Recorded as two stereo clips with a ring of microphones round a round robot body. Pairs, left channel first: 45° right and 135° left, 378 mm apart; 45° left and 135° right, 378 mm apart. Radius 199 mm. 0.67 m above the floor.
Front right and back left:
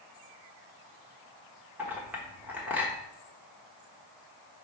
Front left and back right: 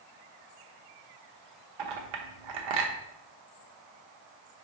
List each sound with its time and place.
1.8 s a clink: 140° right, 1.1 m